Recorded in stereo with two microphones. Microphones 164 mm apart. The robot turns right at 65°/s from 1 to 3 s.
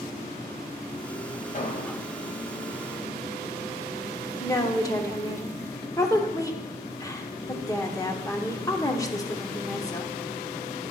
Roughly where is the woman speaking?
Centre.